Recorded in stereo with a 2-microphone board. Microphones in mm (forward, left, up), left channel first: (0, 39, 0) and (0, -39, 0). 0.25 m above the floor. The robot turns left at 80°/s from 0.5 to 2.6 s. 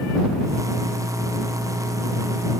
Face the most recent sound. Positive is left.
No sound to turn to.